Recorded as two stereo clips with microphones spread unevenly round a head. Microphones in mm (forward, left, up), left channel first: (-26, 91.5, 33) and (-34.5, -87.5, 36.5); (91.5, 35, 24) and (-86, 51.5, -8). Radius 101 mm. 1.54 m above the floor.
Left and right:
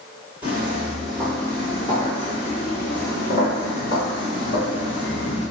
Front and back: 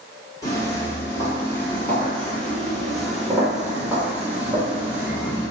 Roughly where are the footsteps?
Ahead.